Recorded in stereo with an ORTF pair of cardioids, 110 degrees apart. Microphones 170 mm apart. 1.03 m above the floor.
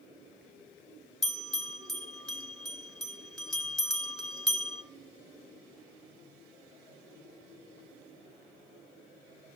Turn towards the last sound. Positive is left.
turn(degrees=0)